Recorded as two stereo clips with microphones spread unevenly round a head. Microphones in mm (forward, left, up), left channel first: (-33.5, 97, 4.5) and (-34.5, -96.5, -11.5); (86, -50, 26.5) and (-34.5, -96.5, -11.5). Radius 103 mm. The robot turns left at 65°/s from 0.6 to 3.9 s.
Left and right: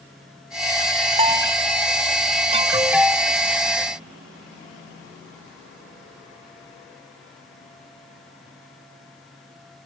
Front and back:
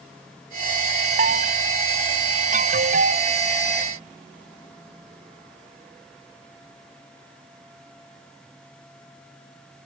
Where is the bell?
150° right; by 1.6 s 170° right.